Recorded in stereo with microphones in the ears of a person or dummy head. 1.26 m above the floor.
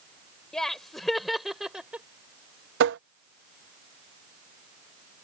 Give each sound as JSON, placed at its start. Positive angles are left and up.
{"t": 0.5, "sound": "laughter", "side_deg": 0}
{"t": 2.8, "sound": "tapping", "side_deg": -70}